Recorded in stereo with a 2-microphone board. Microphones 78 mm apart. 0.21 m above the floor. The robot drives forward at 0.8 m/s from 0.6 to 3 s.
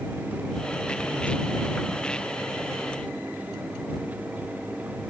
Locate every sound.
Only background noise.